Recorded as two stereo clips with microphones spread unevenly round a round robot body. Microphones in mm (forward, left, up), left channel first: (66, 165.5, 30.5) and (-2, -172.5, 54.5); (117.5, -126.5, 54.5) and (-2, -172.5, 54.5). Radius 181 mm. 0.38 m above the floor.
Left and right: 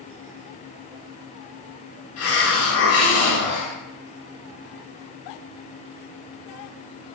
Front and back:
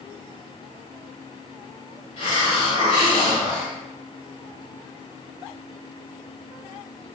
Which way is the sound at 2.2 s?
40° left.